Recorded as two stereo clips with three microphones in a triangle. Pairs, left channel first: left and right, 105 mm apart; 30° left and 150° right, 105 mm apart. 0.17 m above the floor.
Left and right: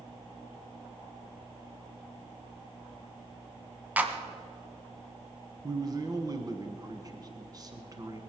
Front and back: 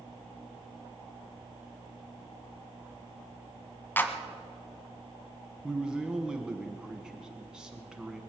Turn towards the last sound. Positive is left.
turn(degrees=-70)